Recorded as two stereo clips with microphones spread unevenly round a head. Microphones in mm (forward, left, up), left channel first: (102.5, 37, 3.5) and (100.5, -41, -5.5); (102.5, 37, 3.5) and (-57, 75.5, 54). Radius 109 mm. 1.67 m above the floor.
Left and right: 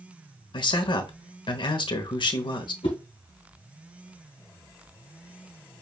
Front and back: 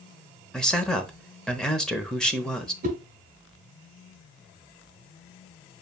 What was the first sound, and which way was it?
A man speaking, 70° left.